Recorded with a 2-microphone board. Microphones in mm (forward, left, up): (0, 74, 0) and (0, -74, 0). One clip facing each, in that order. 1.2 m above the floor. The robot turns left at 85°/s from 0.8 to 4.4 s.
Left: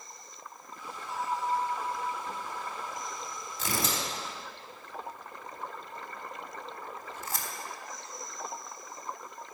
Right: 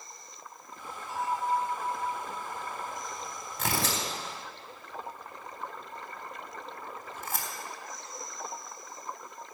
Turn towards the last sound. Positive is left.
turn(degrees=-55)  # may be behind; listen again after turning